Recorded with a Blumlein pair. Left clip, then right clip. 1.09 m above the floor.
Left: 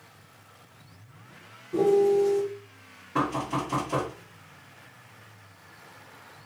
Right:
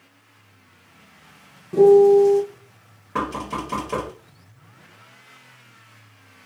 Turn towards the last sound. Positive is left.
turn(degrees=-70)